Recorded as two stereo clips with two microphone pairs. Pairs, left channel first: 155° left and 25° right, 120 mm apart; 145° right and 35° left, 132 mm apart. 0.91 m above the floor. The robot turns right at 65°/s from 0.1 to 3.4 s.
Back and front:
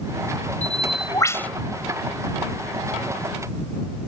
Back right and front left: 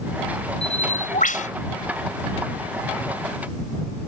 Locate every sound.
0.6 s a bird: 175° left; by 1.5 s 125° right